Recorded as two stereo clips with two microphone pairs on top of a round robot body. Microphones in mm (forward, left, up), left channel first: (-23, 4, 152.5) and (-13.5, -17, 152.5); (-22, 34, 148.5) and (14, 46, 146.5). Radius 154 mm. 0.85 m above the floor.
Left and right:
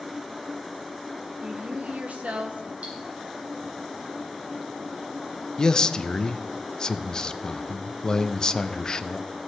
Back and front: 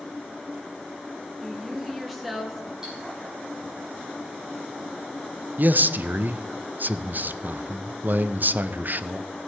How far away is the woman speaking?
About 1.4 m.